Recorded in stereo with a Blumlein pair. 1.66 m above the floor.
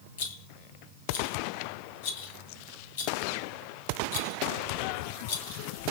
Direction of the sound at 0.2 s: 55° left.